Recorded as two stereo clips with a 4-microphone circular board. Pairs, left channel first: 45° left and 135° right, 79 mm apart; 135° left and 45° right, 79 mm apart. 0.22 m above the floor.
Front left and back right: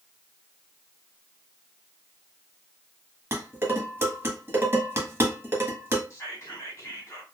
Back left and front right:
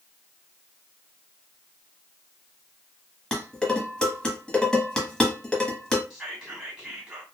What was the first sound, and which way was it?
Dishes clattering, 155° right.